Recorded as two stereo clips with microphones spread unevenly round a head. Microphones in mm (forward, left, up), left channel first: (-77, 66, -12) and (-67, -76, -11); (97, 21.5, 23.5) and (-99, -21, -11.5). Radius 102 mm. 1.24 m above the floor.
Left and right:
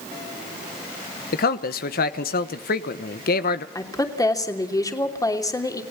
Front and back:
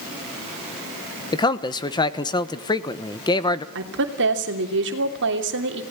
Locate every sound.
1.3 s a man speaking: 85° left, 1.2 m
3.8 s a woman speaking: 160° left, 3 m